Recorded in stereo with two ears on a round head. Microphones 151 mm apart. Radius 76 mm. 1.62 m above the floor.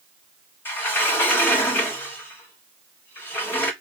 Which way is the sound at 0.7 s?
10° left (ahead or behind).